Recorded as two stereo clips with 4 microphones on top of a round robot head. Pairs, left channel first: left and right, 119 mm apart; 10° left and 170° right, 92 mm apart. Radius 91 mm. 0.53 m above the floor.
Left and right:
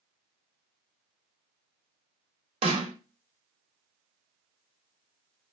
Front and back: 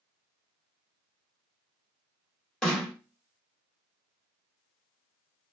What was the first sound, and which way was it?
A snare drum, 70° right.